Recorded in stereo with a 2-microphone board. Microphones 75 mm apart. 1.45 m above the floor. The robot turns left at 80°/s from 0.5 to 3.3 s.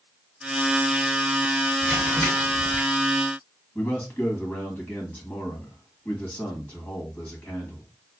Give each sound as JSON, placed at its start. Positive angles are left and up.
{"t": 1.8, "sound": "crumpling", "azimuth_deg": -175, "distance_m": 2.0}
{"t": 3.8, "sound": "a man speaking", "side_deg": 25, "distance_m": 1.8}